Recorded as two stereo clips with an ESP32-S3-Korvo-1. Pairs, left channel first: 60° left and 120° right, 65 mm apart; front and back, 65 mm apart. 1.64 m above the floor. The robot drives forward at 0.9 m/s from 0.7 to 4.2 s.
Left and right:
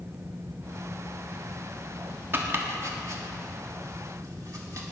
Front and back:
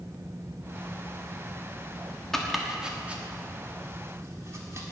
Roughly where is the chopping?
Right.